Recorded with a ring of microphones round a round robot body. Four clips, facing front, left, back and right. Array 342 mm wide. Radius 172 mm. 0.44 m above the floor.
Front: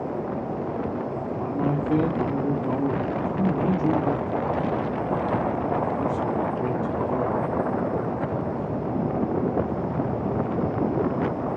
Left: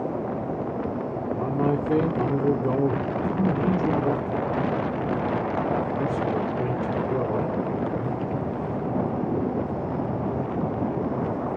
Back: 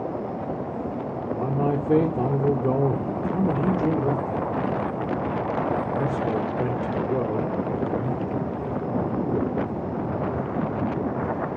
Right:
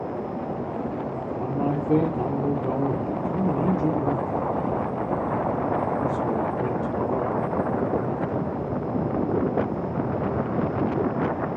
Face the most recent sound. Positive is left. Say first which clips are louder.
# left 2 dB, back 2 dB
turn(degrees=170)